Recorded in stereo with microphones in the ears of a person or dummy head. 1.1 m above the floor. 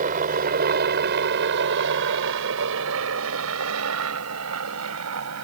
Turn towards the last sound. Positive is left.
turn(degrees=-80)